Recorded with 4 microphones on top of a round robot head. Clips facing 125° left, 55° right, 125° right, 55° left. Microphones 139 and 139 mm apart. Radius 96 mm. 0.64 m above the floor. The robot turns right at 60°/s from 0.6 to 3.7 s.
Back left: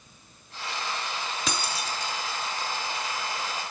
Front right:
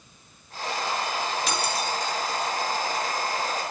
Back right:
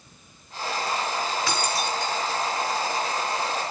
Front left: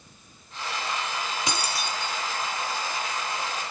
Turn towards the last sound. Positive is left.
turn(degrees=-100)